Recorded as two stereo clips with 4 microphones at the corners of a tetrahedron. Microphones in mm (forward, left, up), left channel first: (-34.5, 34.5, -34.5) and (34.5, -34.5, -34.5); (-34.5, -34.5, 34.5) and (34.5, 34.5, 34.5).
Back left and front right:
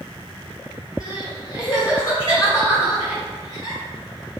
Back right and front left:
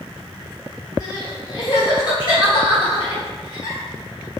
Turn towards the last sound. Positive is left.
turn(degrees=-175)